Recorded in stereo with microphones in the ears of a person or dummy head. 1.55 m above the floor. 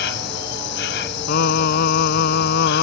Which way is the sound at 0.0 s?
65° left (ahead or behind).